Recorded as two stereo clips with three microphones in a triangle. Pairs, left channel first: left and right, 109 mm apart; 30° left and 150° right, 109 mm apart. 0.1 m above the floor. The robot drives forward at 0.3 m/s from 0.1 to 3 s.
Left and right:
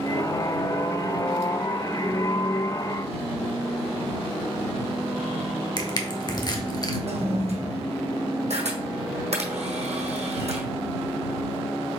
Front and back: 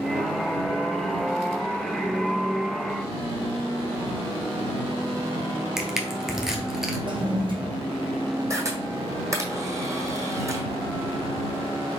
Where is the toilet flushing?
110° right, 1.4 m.